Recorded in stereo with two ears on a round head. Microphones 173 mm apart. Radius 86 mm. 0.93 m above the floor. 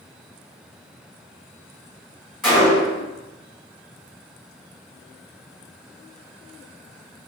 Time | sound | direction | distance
2.4 | a gunshot | centre (ahead or behind) | 1.2 m